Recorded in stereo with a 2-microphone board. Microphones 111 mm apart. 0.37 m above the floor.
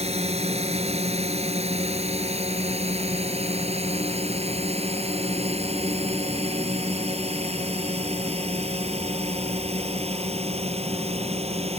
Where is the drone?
70° right (ahead or behind); by 11.8 s 65° right (ahead or behind).